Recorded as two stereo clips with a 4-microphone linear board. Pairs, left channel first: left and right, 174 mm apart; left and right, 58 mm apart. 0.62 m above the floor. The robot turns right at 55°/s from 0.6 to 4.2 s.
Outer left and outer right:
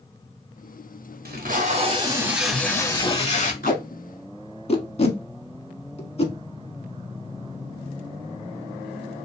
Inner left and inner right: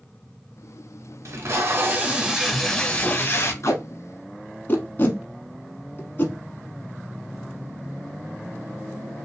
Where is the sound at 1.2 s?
70° right, 0.8 m; by 3.5 s 55° left, 0.8 m.